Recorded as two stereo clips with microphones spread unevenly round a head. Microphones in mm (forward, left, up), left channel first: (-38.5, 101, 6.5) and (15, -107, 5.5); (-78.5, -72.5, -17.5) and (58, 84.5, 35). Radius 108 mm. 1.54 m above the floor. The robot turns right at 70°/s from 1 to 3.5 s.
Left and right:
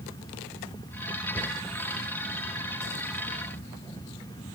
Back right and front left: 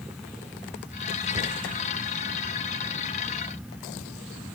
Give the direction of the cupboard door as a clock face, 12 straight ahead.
12 o'clock.